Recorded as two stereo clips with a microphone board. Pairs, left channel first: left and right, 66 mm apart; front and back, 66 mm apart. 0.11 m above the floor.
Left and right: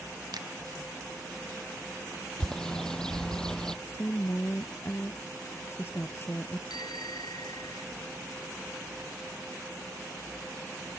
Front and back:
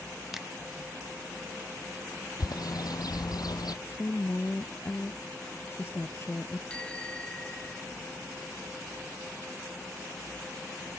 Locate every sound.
0.3 s a finger snap: 95° right
2.4 s a bird: 10° left
3.9 s a woman speaking: 45° left
6.7 s a bicycle bell: 75° left